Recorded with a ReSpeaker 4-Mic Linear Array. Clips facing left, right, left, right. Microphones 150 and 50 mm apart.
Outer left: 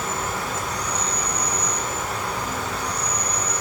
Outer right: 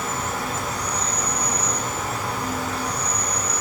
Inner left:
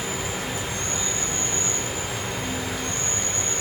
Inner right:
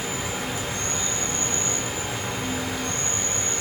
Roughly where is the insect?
Centre.